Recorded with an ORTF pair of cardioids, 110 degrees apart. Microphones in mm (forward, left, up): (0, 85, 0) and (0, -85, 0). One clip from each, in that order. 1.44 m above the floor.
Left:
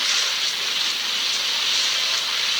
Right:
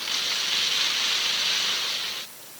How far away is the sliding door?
No sliding door in this recording.